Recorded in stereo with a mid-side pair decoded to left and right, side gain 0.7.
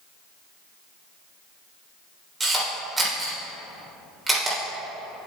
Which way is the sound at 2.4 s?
15° right.